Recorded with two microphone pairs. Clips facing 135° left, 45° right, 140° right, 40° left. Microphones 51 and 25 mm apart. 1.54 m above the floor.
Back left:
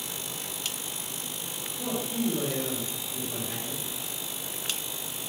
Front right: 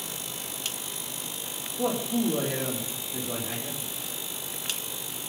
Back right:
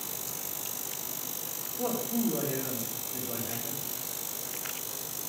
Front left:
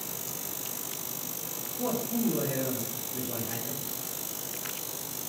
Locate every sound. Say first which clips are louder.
1.8 s a man speaking: front right 4 dB, front left 1 dB; 70° right, 4.5 m